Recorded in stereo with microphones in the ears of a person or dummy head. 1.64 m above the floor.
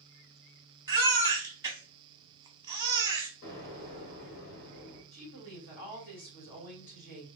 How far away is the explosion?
About 1.5 m.